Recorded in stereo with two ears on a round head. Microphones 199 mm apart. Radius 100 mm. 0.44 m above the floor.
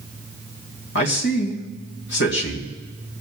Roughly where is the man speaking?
Left.